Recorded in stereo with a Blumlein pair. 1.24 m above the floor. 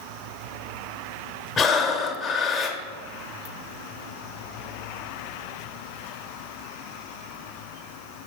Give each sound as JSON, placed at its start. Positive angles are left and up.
{"t": 1.6, "sound": "breathing", "azimuth_deg": 20, "distance_m": 0.8}